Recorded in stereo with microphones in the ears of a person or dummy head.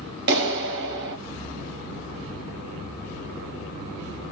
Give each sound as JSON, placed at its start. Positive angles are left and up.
{"t": 0.3, "sound": "a clap", "side_deg": -60, "distance_m": 1.0}